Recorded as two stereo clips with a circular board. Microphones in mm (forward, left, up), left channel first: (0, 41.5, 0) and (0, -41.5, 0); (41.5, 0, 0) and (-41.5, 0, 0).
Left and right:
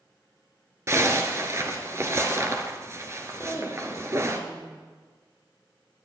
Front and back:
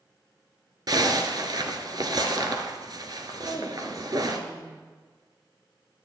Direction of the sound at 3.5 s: 130° right.